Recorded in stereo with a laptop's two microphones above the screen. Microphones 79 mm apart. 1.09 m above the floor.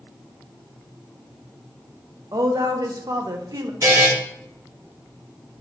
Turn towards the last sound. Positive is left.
turn(degrees=-45)  # may be behind; listen again after turning